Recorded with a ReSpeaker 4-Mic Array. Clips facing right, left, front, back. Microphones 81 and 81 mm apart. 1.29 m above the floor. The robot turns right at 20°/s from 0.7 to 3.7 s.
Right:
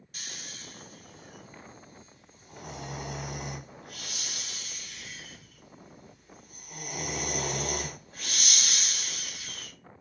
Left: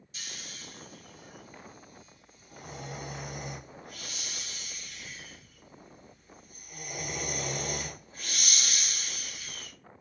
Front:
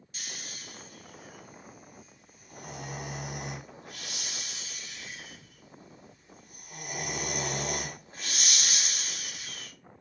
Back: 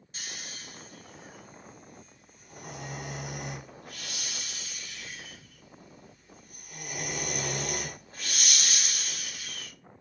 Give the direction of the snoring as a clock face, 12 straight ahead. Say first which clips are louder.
Right 1 dB, back 1 dB; 4 o'clock.